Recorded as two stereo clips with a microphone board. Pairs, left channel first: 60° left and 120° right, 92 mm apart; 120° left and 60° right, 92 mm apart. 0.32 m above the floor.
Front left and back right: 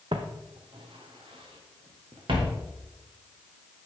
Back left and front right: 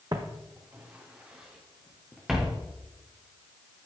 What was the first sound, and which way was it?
Footsteps, 105° right.